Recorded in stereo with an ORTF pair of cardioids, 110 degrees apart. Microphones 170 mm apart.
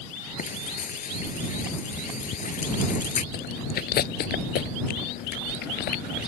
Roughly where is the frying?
Ahead left.